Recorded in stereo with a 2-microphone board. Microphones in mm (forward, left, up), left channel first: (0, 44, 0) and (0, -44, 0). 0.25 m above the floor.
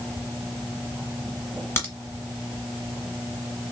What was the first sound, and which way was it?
A crack, 30° left (ahead or behind).